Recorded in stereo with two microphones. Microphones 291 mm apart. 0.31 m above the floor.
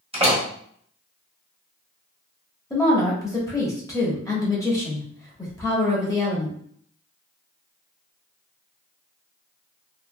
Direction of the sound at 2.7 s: 10° left (ahead or behind).